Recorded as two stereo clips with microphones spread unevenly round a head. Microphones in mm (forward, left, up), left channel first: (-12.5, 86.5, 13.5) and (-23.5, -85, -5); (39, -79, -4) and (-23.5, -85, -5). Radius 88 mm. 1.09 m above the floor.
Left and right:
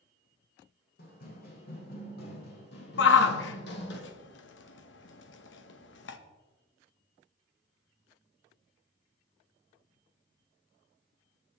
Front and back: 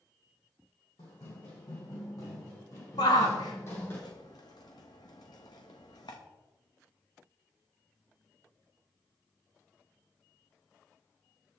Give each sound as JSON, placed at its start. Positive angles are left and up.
{"t": 1.0, "sound": "running footsteps", "azimuth_deg": 45, "distance_m": 4.0}
{"t": 3.0, "sound": "a shout", "azimuth_deg": 55, "distance_m": 1.2}